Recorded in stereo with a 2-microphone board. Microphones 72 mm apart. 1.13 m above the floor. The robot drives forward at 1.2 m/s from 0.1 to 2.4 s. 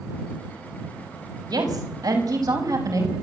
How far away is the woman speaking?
About 5.5 m.